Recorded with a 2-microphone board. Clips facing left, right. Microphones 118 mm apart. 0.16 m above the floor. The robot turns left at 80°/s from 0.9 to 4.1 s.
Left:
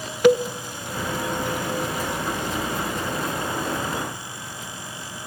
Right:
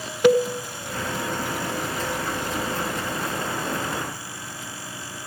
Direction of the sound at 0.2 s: 30° right (ahead or behind).